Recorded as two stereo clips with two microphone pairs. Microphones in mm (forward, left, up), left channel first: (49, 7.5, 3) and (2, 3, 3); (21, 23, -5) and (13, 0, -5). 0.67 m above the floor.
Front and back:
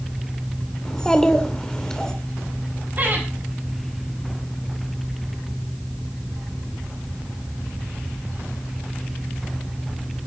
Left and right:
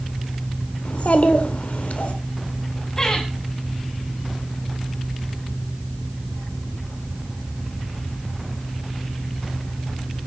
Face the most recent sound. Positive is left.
turn(degrees=145)